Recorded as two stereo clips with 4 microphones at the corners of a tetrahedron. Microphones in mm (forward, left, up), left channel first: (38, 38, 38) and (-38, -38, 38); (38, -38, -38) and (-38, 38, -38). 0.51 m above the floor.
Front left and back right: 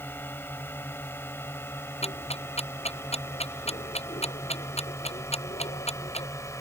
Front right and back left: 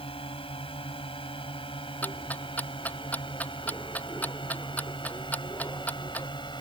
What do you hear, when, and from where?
0.0 s a drone: 25° right; by 6.6 s 10° right
2.0 s ticking: 30° left